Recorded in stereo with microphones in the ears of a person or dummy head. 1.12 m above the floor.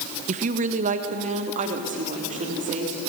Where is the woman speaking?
30° right (ahead or behind), 0.6 m; by 3.0 s 35° right (ahead or behind), 4 m.